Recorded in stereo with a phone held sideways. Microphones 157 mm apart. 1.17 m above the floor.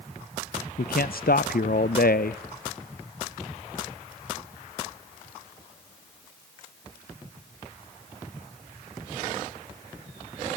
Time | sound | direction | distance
0.8 | a man speaking | 80° left | 0.5 m